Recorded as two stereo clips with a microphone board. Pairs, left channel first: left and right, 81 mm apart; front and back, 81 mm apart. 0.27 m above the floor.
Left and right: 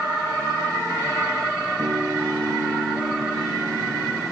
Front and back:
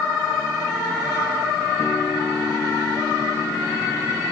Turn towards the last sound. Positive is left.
turn(degrees=-75)